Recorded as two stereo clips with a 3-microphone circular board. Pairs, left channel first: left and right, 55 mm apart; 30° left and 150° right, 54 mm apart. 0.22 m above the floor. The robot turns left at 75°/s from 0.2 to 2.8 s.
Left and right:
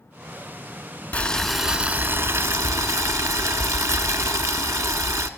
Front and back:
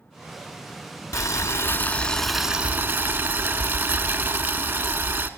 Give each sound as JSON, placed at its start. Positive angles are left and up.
{"t": 1.1, "sound": "boiling", "azimuth_deg": 30, "distance_m": 0.7}